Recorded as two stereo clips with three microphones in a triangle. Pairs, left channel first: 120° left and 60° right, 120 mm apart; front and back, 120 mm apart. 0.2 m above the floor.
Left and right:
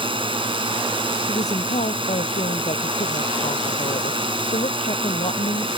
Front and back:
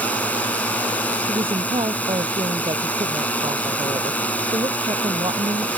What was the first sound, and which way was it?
A drone, 75° right.